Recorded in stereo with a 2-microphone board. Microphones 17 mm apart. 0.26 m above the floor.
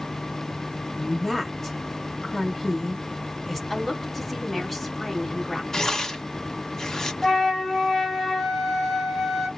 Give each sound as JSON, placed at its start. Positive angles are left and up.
{"t": 1.0, "sound": "a woman speaking", "side_deg": 10, "distance_m": 1.4}
{"t": 3.7, "sound": "a woman speaking", "side_deg": 10, "distance_m": 1.9}
{"t": 5.7, "sound": "tearing paper", "side_deg": 30, "distance_m": 0.8}
{"t": 7.2, "sound": "a flute", "side_deg": 20, "distance_m": 1.9}